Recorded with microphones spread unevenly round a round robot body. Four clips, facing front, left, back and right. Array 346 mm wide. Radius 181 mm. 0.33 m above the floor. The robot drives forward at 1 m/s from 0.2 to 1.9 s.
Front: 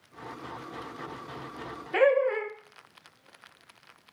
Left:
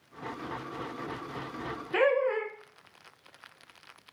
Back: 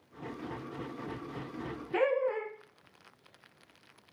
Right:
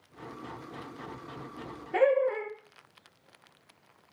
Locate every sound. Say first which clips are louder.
1.9 s laughter: right 1 dB, front 6 dB; 100° left, 1.1 m